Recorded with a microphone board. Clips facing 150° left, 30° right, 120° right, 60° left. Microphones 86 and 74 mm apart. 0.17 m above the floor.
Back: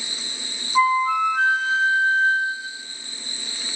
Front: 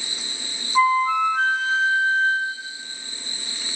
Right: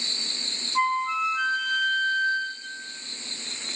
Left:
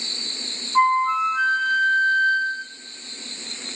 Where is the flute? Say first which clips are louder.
Even, left 7 dB; 65° left, 0.6 m.